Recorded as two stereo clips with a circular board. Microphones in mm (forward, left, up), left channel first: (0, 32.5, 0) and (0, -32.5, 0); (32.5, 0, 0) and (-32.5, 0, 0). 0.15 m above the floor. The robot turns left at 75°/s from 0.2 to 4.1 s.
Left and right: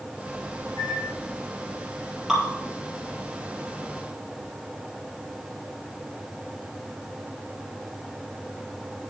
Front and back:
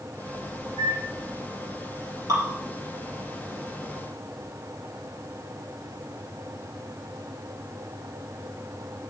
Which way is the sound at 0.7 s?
110° right.